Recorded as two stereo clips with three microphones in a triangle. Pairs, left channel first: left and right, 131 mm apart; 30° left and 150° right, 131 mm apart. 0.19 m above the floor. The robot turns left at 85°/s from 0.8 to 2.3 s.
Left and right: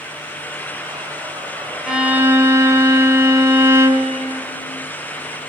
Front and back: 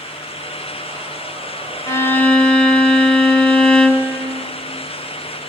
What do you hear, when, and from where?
1.9 s a violin: 10° right, 1.6 m; by 4.1 s 45° right, 1.6 m